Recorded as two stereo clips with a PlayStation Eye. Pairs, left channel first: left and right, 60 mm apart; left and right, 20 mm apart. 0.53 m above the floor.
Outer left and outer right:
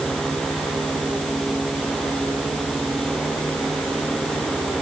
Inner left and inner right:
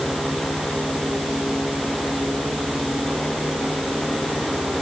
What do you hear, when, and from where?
Only background noise.